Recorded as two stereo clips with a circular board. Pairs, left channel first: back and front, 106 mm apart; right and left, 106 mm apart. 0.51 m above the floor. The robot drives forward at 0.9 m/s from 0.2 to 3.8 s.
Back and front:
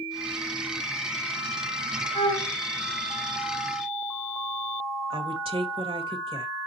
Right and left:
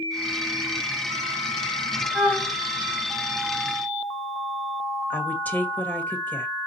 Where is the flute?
Straight behind, 2.5 m.